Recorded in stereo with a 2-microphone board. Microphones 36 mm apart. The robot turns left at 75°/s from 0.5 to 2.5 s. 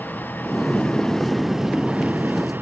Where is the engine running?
70° left; by 2.6 s 80° right.